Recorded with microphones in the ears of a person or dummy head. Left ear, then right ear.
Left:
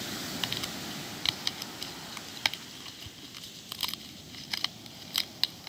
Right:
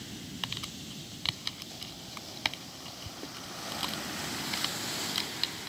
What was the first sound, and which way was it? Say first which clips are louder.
Crumpling: left 2 dB; 20° left (ahead or behind).